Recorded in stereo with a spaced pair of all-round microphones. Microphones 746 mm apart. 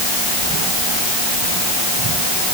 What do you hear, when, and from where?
Only background noise.